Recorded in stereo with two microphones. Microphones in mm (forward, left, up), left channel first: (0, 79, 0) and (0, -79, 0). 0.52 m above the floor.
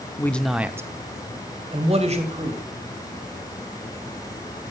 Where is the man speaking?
15° left (ahead or behind), 0.8 m; by 2.6 s 45° right (ahead or behind), 2.5 m.